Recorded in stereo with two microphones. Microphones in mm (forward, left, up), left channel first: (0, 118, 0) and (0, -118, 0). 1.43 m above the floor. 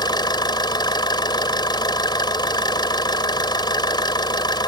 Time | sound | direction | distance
0.0 | an engine running | 20° left (ahead or behind) | ?